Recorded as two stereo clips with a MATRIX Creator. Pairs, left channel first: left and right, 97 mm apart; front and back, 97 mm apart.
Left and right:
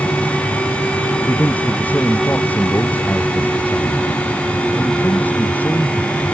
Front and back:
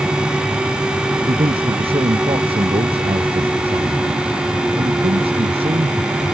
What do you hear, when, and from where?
1.3 s a man speaking: 160° left